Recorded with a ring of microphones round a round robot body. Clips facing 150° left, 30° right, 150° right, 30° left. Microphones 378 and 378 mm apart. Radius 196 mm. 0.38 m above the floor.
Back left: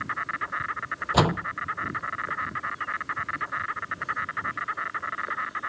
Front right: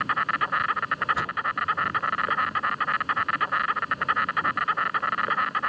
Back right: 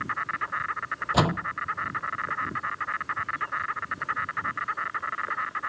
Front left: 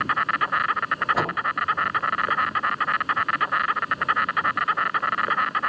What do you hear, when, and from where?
0.0 s an insect: straight ahead
1.1 s a door slam: 160° left